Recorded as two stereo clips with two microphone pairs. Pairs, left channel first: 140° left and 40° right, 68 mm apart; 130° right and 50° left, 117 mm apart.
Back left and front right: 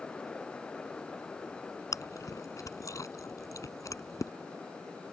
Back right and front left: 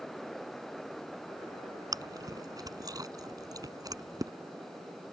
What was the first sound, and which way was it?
Chewing, 105° left.